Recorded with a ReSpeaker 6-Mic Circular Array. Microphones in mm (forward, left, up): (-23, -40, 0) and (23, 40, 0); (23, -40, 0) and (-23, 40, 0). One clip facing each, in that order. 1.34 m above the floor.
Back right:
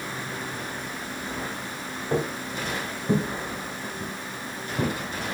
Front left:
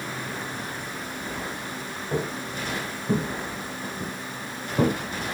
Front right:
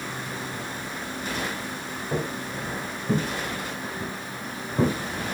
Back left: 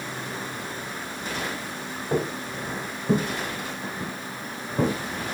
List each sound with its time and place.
2.1 s footsteps: straight behind, 2.5 m; by 4.9 s 30° left, 1.7 m